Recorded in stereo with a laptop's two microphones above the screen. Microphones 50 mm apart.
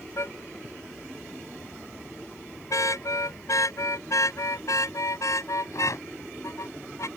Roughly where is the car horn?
Left.